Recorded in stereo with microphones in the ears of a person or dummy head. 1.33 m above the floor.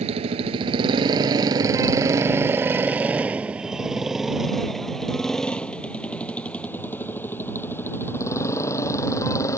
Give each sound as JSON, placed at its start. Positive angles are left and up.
{"t": 0.0, "sound": "a motorcycle", "side_deg": -35}